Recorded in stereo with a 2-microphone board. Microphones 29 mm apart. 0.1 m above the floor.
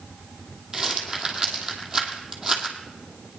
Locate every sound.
0.7 s a rattle: 20° right (ahead or behind), 2.0 m